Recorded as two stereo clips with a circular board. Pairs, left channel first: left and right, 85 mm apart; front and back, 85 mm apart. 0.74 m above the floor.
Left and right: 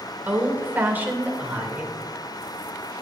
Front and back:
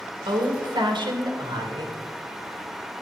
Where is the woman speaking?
160° right, 2 m.